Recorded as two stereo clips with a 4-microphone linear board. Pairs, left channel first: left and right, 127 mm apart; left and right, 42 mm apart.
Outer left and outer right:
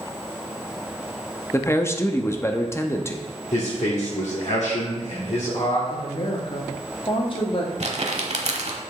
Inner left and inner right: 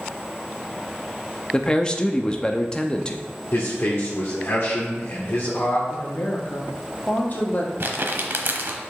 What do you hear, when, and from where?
1.5 s a man speaking: 20° left (ahead or behind), 0.6 m
3.5 s a man speaking: 60° left (ahead or behind), 1.6 m
5.9 s a woman speaking: 45° left (ahead or behind), 1.3 m
7.8 s crumpling: 55° right (ahead or behind), 0.9 m